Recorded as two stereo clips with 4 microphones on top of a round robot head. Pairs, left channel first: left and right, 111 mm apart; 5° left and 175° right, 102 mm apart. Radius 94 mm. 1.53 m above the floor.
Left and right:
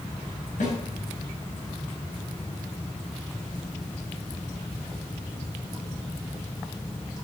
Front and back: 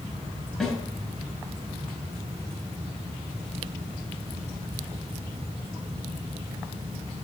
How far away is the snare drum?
About 7 m.